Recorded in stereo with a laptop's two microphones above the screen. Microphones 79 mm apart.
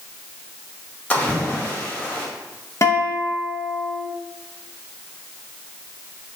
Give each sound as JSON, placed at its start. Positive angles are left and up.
{"t": 1.1, "sound": "a splash", "side_deg": 20, "distance_m": 1.7}
{"t": 2.8, "sound": "a guitar", "side_deg": 40, "distance_m": 1.0}